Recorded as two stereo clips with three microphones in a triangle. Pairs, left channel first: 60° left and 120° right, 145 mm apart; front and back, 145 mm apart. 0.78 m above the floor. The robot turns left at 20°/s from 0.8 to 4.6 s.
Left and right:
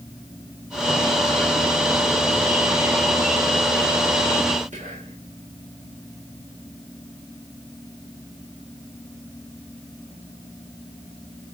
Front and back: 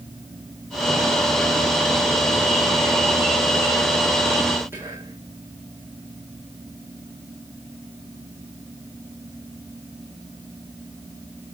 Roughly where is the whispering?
Right.